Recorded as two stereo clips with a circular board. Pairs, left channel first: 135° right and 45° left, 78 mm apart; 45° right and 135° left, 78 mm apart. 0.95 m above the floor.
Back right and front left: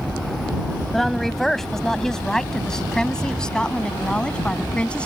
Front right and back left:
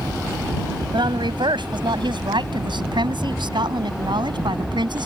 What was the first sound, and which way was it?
A woman speaking, 135° left.